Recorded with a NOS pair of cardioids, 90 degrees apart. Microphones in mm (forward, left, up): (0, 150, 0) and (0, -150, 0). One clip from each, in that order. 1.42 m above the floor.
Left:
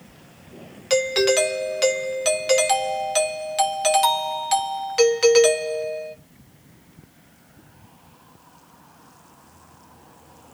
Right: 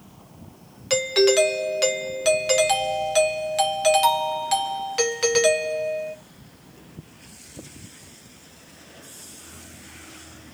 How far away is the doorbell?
About 1.1 m.